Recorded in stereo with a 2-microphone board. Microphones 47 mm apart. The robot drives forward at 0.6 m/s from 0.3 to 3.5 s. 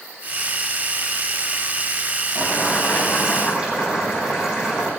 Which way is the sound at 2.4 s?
25° right (ahead or behind).